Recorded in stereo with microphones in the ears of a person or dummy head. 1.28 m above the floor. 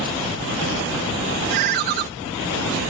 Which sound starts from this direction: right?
A ringtone, at 1.5 s.